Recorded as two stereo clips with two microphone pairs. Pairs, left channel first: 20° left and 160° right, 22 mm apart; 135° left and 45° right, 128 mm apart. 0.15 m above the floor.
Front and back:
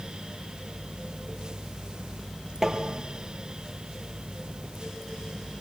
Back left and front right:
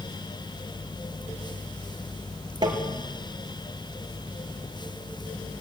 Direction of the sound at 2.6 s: 95° right.